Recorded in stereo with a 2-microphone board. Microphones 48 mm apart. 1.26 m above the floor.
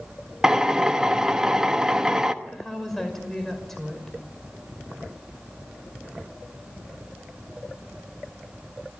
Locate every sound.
0.4 s a drill: 15° right (ahead or behind), 1.2 m
2.4 s a woman speaking: 5° left (ahead or behind), 5.5 m